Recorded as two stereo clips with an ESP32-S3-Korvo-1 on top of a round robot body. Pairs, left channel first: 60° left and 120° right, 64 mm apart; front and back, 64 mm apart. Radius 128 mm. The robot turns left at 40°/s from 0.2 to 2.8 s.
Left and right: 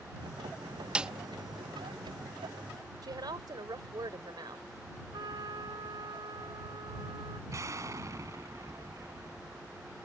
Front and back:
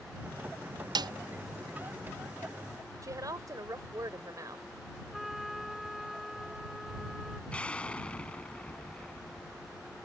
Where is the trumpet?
95° right.